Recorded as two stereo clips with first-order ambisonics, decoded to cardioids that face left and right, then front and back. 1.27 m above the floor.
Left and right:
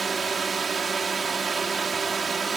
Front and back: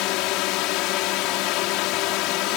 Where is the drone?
15° right.